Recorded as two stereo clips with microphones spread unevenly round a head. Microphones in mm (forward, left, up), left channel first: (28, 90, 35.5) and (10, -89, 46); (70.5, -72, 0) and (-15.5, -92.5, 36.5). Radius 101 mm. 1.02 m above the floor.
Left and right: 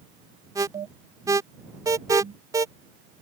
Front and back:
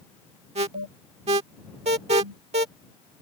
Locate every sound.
0.6 s an alarm: 170° right